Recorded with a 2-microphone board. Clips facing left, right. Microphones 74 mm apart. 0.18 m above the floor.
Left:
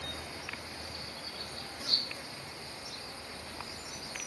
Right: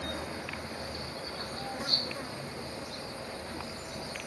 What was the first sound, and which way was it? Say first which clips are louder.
An insect: right 6 dB; 40° right (ahead or behind).